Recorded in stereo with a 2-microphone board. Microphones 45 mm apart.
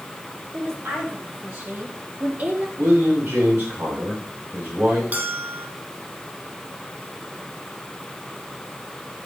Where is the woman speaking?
70° right (ahead or behind), 5 m; by 2.7 s 40° right (ahead or behind), 3 m.